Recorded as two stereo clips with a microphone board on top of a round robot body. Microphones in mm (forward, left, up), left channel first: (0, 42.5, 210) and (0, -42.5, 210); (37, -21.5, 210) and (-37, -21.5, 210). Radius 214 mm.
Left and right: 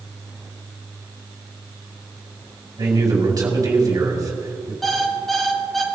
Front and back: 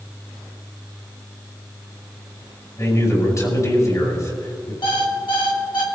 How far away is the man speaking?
About 5 m.